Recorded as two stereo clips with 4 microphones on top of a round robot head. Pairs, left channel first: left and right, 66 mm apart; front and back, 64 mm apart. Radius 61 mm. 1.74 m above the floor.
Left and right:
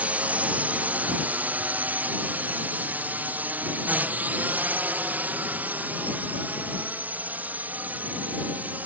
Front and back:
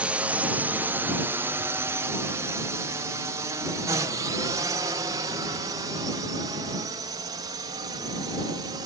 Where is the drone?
135° right; by 8.9 s 155° right.